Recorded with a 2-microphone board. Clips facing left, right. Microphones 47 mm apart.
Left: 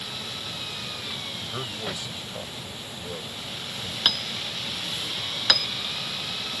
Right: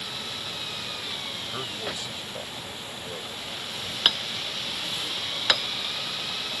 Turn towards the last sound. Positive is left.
turn(degrees=-20)  # may be behind; listen again after turning